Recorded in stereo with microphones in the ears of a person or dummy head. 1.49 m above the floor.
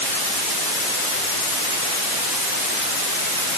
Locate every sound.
Only background noise.